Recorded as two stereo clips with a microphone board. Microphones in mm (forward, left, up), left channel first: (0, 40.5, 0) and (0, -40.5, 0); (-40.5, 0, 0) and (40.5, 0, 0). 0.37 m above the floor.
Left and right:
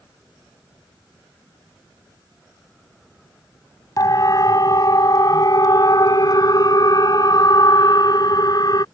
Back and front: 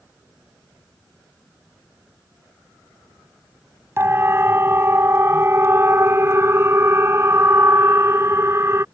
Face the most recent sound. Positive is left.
turn(degrees=55)